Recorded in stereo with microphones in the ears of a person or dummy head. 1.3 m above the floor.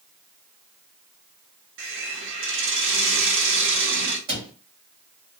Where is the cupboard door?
25° right (ahead or behind), 1.2 m.